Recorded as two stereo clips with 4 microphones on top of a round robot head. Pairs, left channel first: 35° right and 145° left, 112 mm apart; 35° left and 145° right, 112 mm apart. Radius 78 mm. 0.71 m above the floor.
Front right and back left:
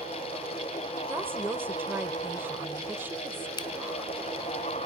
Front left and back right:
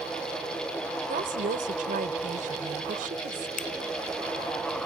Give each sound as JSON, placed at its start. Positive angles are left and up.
{"t": 1.1, "sound": "a woman speaking", "azimuth_deg": -140}
{"t": 3.6, "sound": "a finger snap", "azimuth_deg": 20}